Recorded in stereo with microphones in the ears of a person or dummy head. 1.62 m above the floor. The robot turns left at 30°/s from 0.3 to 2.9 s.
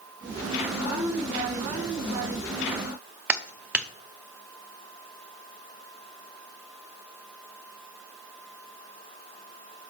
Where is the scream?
No scream in this recording.